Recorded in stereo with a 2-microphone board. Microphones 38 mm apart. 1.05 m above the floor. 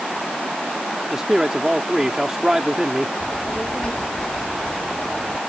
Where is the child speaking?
30° left (ahead or behind).